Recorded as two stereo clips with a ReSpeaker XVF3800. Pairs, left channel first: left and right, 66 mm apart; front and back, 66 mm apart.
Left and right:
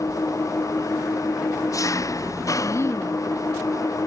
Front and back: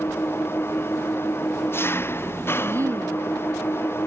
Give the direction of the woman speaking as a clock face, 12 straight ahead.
7 o'clock.